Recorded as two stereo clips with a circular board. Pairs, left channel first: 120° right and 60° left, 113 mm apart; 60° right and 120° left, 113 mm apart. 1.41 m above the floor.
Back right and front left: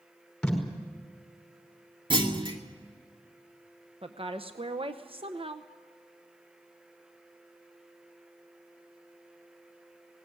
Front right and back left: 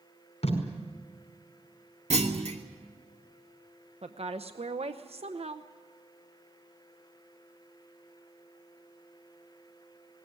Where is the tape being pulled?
35° right, 5 m.